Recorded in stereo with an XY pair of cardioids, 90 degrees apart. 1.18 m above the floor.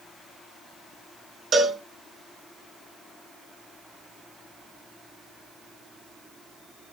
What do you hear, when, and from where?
1.5 s a cowbell: 60° right, 4.5 m